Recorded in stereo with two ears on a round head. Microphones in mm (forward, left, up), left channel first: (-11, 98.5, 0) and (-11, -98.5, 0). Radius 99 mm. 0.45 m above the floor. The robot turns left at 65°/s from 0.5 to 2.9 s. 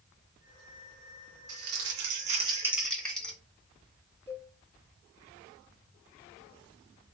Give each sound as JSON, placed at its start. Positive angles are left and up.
{"t": 1.5, "sound": "crumpling", "azimuth_deg": -90, "distance_m": 2.0}
{"t": 4.3, "sound": "a cowbell", "side_deg": 10, "distance_m": 1.3}